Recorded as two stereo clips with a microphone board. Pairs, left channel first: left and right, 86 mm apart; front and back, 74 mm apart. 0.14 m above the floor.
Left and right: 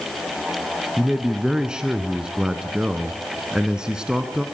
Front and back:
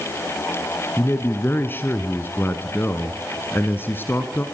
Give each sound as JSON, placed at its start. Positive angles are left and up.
{"t": 1.0, "sound": "a man speaking", "azimuth_deg": -20, "distance_m": 1.3}